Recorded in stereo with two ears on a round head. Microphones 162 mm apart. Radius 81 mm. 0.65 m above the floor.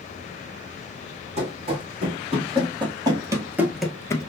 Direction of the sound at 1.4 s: 35° right (ahead or behind).